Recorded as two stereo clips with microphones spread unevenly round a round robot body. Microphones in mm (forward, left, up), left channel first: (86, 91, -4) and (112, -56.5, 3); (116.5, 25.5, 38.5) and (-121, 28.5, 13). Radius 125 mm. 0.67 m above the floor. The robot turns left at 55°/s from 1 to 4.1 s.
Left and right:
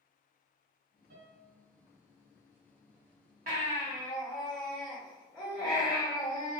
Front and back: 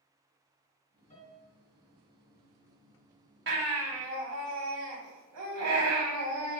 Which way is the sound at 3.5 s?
140° right.